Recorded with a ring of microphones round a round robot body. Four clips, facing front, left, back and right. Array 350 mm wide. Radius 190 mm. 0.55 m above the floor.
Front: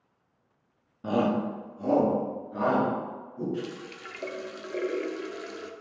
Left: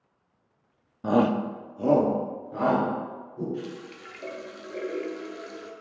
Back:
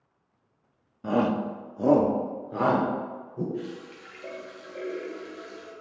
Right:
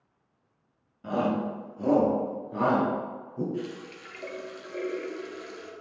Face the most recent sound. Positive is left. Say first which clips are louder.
# right 1 dB, even
turn(degrees=0)